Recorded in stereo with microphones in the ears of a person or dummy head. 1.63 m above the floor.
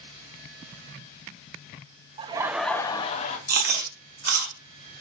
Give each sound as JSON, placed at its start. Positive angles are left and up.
{"t": 2.2, "sound": "laughter", "side_deg": -30, "distance_m": 0.6}
{"t": 3.5, "sound": "chewing", "side_deg": -45, "distance_m": 0.8}